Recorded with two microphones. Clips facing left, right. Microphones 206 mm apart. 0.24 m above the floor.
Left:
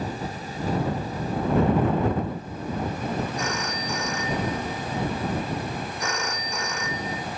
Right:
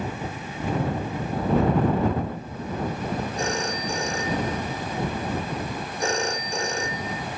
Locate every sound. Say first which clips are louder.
3.4 s a phone ringing: right 2 dB; 30° right (ahead or behind)